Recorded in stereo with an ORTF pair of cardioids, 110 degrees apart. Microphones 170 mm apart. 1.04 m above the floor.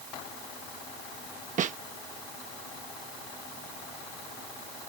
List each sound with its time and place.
1.6 s a snare drum: 50° right